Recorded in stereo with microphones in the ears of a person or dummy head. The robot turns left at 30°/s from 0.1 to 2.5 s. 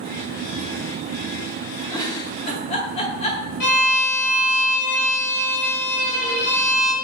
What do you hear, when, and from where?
1.9 s a giggle: 15° left (ahead or behind), 1.1 m; by 3.4 s 30° left (ahead or behind), 1.1 m
3.6 s a violin: 60° left (ahead or behind), 2 m